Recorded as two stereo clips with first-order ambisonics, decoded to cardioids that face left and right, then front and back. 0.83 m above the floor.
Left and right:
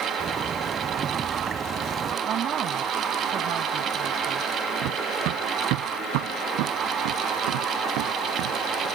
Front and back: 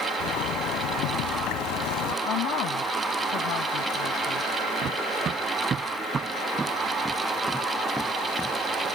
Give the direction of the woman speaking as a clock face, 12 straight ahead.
1 o'clock.